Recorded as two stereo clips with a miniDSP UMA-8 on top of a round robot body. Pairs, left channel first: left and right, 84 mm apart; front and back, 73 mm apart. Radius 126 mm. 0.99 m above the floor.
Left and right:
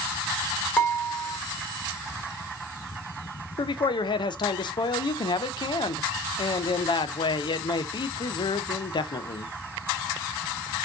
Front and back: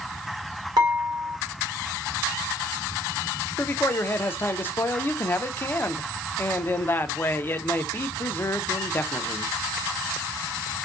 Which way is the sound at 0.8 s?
160° left.